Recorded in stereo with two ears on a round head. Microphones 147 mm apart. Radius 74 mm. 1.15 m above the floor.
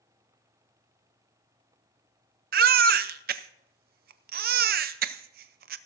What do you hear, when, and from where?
2.5 s a baby crying: 60° right (ahead or behind), 0.6 m